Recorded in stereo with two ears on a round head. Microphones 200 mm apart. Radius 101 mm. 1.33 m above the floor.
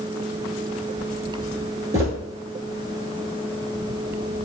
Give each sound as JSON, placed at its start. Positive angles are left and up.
{"t": 1.9, "sound": "footsteps", "side_deg": -15, "distance_m": 1.3}